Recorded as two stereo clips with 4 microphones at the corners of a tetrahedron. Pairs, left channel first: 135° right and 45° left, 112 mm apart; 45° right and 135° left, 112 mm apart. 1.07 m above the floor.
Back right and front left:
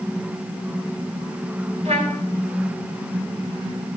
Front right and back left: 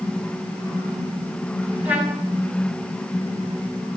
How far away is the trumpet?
About 9 m.